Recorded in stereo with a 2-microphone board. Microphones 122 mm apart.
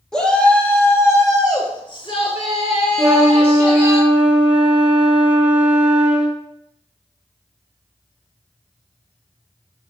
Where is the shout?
5° left (ahead or behind), 1.8 m; by 4.0 s 55° left (ahead or behind), 2.5 m.